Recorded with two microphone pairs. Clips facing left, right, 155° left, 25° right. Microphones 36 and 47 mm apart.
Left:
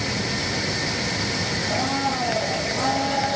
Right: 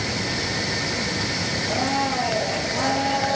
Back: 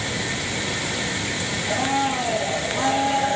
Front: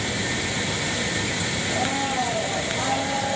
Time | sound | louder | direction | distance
1.7 | a blender | right 1 dB, back 4 dB | 145° right | 3.5 m